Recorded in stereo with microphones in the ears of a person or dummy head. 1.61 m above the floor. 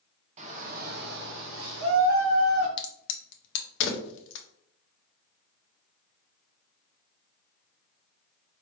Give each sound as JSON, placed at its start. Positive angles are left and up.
{"t": 0.4, "sound": "a shout", "side_deg": -40, "distance_m": 1.0}
{"t": 2.8, "sound": "a crack", "side_deg": 65, "distance_m": 0.6}